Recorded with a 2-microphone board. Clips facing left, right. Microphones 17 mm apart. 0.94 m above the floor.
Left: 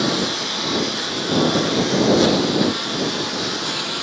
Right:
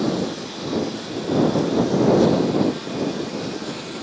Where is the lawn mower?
45° left (ahead or behind); by 4.0 s 50° left (ahead or behind).